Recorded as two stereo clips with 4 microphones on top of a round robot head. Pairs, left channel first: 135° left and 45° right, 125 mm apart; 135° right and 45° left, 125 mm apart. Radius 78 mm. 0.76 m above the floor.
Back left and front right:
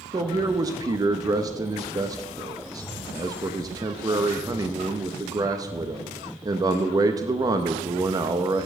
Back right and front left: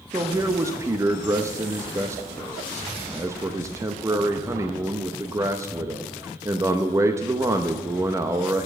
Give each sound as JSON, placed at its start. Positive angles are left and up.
{"t": 0.1, "sound": "a man speaking", "azimuth_deg": -5, "distance_m": 0.7}